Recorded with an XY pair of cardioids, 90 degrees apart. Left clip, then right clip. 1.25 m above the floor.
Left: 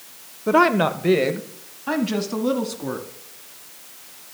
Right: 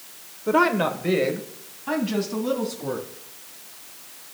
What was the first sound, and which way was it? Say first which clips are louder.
A woman speaking: left 3 dB; 35° left.